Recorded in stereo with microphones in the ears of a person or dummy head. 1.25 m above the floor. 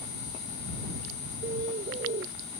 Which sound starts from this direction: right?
A bird, at 1.4 s.